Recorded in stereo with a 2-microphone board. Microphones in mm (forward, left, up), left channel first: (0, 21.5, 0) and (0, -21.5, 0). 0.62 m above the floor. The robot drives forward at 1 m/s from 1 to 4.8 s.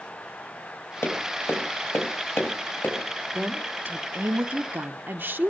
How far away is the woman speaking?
About 1.5 m.